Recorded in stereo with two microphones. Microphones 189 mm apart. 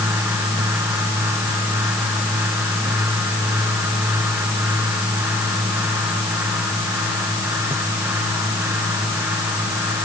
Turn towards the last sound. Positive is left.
No sound to turn to.